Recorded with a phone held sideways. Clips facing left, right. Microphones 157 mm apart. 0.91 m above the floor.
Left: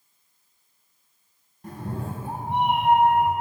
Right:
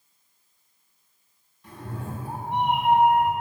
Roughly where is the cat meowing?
Left.